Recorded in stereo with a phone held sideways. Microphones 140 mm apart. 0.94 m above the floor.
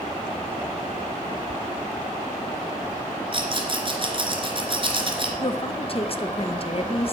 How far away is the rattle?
About 3 m.